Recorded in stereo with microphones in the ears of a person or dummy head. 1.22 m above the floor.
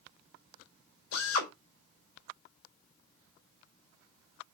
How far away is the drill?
About 3 m.